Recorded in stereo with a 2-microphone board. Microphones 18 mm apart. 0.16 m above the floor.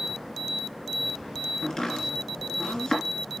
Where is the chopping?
55° left (ahead or behind), 3 m.